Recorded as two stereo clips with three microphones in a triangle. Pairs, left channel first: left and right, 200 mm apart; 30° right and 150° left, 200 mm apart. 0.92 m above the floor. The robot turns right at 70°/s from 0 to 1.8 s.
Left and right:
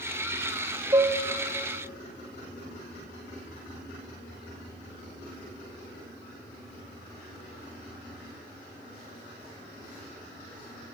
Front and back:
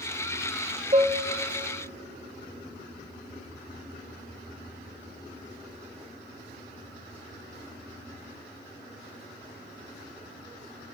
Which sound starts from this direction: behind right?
Dishes clattering, at 0.9 s.